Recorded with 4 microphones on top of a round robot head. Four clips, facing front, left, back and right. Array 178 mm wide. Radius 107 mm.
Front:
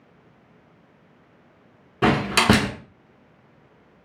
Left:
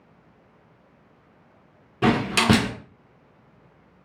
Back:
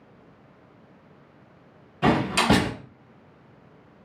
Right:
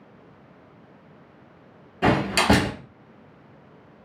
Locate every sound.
2.0 s a door slam: 20° left, 1.3 m